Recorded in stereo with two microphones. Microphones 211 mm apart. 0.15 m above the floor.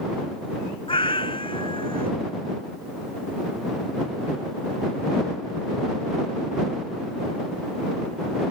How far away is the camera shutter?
I don't hear a camera shutter.